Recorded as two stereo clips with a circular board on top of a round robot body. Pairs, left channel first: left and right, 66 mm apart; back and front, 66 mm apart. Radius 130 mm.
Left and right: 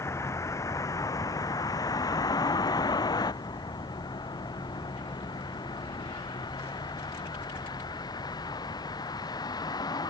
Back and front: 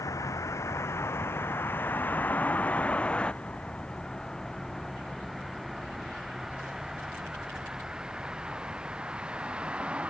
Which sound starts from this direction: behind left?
A vehicle, at 0.0 s.